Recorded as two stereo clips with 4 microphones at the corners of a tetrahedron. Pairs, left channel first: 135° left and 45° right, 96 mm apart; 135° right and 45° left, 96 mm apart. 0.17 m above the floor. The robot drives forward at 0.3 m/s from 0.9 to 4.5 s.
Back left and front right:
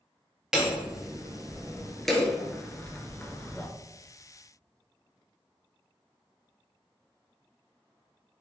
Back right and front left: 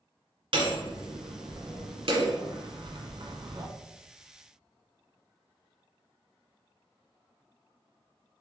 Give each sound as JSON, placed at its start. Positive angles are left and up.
{"t": 0.5, "sound": "hammering", "azimuth_deg": 40, "distance_m": 1.7}